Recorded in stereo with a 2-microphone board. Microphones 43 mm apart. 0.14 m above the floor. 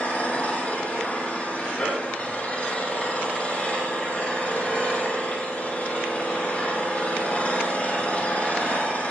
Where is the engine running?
35° left (ahead or behind), 4 m.